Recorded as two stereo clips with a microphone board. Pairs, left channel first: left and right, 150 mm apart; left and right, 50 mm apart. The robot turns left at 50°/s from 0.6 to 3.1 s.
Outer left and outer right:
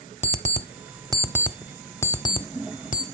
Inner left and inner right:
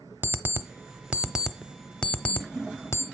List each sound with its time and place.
0.2 s an alarm clock: 50° right (ahead or behind), 0.6 m; by 3.0 s 65° left (ahead or behind), 0.6 m